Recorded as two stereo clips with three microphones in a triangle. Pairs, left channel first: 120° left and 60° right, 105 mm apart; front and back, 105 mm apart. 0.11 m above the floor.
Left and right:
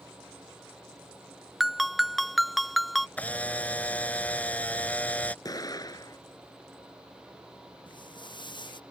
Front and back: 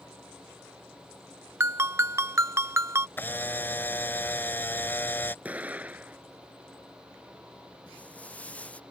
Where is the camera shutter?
55° left.